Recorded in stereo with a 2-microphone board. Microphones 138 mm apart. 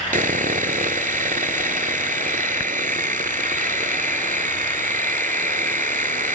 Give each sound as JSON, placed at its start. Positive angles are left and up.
{"t": 0.1, "sound": "sawing", "side_deg": -85}